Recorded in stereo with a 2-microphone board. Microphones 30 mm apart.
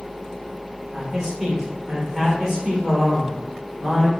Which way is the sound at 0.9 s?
20° right (ahead or behind).